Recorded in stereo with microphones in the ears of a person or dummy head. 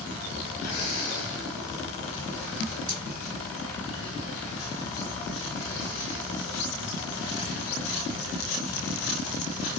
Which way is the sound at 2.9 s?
40° right (ahead or behind).